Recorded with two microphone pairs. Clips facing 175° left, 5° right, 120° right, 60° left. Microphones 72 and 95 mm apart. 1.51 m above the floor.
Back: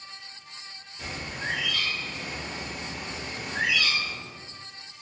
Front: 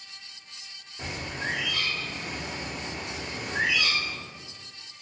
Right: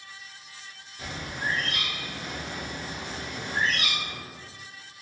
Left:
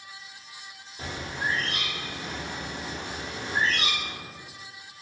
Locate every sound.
1.0 s a bird: 30° left, 0.7 m